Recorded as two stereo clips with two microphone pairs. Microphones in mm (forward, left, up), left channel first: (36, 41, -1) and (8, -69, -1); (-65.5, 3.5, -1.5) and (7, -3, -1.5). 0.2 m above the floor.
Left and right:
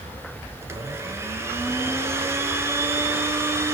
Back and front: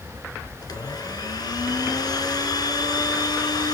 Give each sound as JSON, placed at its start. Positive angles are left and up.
{"t": 0.6, "sound": "a blender", "azimuth_deg": -170, "distance_m": 1.3}